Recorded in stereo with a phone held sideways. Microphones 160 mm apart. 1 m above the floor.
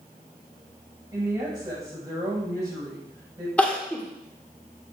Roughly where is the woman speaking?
Right.